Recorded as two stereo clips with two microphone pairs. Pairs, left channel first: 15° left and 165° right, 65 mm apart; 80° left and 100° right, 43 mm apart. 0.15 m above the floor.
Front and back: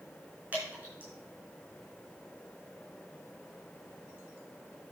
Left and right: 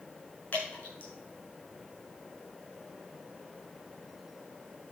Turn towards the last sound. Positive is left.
turn(degrees=125)